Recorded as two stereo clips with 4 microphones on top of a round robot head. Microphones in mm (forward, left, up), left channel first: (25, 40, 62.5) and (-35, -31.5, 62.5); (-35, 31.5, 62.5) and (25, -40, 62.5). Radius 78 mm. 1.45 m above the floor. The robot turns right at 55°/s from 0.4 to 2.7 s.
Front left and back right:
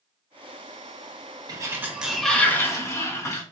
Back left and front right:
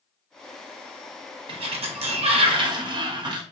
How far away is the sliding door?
About 0.7 m.